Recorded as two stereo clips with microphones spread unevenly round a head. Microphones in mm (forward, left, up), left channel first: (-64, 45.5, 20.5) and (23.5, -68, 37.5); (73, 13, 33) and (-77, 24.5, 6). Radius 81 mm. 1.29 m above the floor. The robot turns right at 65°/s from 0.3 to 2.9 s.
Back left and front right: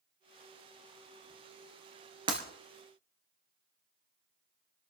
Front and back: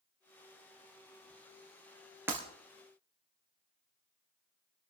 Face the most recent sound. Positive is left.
turn(degrees=-60)